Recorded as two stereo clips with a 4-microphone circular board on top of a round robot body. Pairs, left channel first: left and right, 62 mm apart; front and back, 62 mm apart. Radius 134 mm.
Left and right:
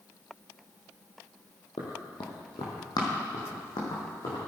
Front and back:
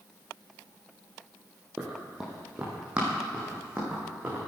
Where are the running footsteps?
100° left, 1.8 m; by 4.4 s 110° left, 4.5 m.